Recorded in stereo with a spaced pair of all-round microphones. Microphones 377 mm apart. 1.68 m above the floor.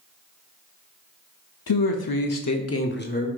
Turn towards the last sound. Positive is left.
turn(degrees=20)  # may be behind; listen again after turning